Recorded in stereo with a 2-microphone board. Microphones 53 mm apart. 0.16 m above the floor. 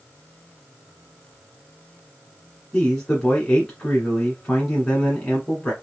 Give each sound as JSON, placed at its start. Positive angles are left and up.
{"t": 2.7, "sound": "a man speaking", "side_deg": 10, "distance_m": 1.5}